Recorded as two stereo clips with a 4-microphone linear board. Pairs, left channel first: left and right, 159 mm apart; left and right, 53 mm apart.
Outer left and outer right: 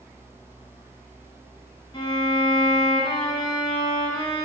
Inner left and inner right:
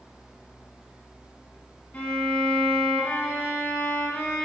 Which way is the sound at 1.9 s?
30° left (ahead or behind).